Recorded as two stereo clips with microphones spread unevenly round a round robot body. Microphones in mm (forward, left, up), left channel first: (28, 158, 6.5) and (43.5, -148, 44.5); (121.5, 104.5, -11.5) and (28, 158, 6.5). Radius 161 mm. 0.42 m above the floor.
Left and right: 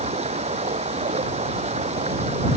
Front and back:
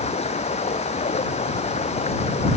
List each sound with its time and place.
0.0 s running water: 20° right